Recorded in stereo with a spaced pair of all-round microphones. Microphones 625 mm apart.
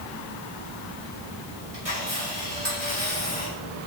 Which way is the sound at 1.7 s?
25° right (ahead or behind).